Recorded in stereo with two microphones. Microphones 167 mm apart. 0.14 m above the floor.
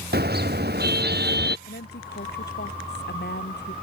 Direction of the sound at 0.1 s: 75° right (ahead or behind).